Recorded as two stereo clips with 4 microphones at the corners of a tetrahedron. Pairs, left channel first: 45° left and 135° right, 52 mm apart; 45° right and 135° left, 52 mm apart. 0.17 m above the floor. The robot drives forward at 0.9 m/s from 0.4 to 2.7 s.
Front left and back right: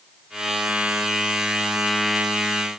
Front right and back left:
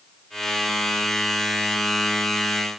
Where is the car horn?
No car horn in this recording.